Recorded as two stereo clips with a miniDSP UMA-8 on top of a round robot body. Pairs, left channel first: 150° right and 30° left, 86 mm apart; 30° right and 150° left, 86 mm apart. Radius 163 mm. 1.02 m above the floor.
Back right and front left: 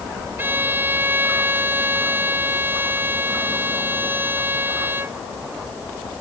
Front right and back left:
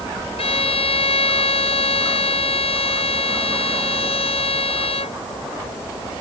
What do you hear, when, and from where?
0.4 s a violin: 40° right